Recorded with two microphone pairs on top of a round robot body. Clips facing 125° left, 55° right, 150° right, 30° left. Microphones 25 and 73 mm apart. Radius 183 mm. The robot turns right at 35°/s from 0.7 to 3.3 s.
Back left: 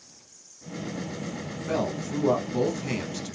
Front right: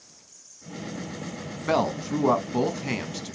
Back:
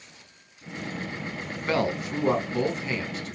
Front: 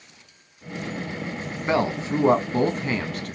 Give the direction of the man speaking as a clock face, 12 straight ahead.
1 o'clock.